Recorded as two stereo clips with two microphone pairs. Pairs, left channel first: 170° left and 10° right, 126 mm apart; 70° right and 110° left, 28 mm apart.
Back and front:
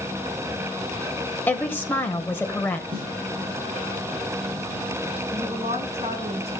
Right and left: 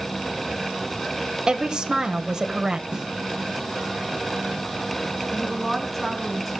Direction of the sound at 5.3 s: 5° left.